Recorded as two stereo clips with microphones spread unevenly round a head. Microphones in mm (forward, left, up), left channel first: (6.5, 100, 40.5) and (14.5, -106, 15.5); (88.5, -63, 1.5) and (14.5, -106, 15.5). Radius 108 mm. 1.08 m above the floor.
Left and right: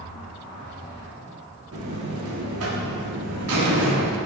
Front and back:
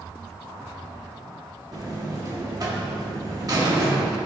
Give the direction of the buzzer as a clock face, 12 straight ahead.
3 o'clock.